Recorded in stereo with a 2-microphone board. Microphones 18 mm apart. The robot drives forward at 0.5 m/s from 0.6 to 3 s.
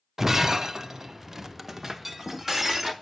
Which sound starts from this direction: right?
Breaking glass, at 0.2 s.